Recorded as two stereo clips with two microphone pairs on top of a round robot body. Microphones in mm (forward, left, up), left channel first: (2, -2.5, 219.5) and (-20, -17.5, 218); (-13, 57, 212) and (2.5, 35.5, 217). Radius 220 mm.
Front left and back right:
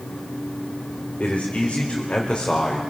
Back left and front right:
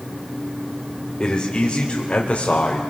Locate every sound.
1.2 s a man speaking: 75° left, 2.5 m; by 2.8 s 100° left, 3 m